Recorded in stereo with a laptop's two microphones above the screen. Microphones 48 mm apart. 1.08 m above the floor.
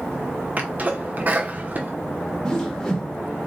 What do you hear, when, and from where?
0.6 s a sneeze: 35° right (ahead or behind), 0.7 m
2.5 s a whoosh: 10° left (ahead or behind), 1.2 m